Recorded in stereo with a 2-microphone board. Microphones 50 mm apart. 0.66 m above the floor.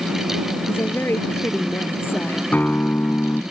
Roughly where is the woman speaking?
Left.